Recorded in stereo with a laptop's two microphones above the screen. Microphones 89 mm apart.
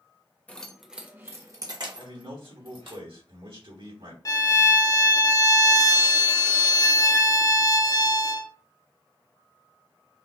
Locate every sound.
0.5 s keys jangling: 15° left (ahead or behind), 0.7 m; by 3.0 s 70° right (ahead or behind), 1.5 m
2.0 s a man speaking: 80° right, 3 m
4.2 s a violin: 40° left (ahead or behind), 0.6 m